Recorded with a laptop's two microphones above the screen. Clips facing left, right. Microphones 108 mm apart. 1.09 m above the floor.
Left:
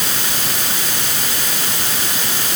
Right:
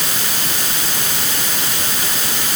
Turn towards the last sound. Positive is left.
No sound to turn to.